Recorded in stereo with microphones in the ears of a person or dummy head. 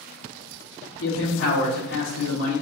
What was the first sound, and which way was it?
A man speaking, 70° left (ahead or behind).